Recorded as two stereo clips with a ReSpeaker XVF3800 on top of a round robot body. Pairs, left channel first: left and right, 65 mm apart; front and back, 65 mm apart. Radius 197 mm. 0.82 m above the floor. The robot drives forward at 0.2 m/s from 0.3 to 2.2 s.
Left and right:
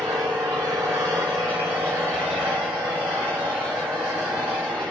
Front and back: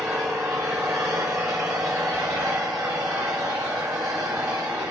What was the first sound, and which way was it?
An engine running, 135° right.